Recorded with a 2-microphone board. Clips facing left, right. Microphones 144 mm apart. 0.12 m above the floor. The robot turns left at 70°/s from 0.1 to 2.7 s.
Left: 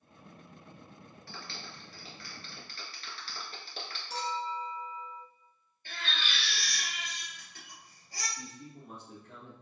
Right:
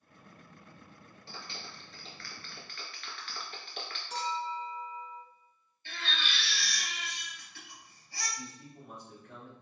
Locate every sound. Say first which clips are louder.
1.3 s a clap: even; 30° right (ahead or behind), 1.3 m; by 4.0 s 35° left (ahead or behind), 1.3 m
4.1 s a clink: even; 40° left (ahead or behind), 1.3 m
5.8 s a baby crying: even; 45° left (ahead or behind), 2.0 m
8.4 s a man speaking: even; 30° left (ahead or behind), 1.8 m